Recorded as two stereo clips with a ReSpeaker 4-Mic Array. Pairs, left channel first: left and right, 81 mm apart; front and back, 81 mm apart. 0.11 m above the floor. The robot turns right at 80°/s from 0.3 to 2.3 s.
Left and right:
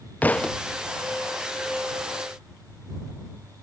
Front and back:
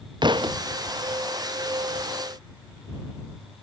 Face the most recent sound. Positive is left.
turn(degrees=-40)